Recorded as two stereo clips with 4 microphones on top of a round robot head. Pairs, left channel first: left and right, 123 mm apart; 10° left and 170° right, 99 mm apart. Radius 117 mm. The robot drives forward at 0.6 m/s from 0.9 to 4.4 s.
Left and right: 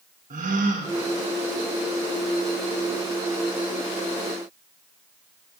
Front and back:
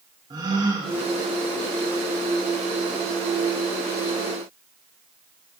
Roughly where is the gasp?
Behind right.